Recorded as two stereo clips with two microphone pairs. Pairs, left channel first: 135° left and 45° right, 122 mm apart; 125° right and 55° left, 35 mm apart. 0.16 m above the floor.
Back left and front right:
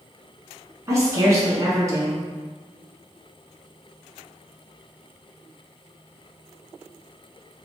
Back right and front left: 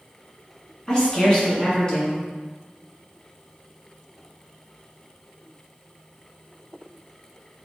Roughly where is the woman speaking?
Right.